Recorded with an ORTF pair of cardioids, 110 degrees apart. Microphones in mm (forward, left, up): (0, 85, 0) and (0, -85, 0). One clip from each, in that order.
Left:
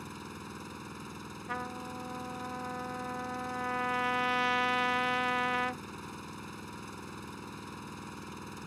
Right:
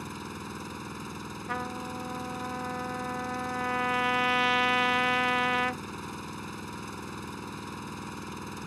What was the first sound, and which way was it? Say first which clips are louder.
An engine running: right 5 dB; 30° right.